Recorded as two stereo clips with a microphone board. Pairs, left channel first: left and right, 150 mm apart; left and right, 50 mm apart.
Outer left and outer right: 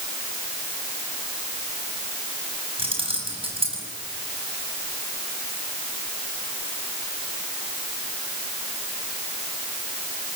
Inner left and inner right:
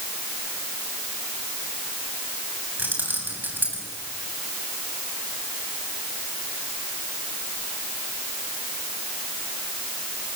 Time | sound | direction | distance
2.8 | keys jangling | 40° right (ahead or behind) | 7 m